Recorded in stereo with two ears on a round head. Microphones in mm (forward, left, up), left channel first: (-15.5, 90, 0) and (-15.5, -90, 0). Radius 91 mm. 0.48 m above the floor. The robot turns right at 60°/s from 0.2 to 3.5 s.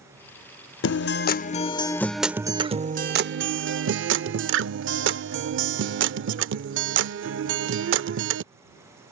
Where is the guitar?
100° left; by 8.4 s 100° right.